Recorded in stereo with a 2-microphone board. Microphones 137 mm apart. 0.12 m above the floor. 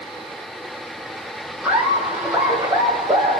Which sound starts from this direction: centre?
Laughter, at 1.6 s.